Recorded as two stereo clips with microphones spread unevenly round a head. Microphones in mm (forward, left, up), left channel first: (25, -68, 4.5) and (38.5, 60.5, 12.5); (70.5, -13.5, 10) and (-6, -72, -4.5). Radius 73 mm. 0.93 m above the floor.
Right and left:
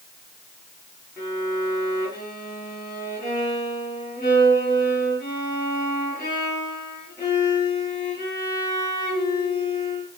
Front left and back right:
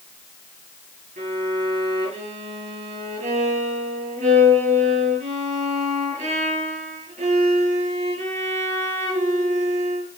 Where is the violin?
165° right, 7.5 m.